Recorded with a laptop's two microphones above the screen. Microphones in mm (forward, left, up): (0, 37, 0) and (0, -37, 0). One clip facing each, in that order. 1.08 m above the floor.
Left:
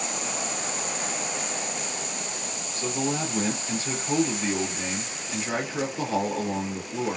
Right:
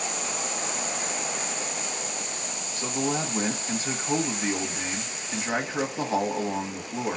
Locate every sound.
2.8 s a man speaking: 25° right (ahead or behind), 1.1 m